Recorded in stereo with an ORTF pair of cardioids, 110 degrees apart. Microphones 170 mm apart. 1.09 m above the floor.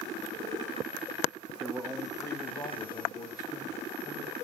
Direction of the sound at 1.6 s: Straight ahead.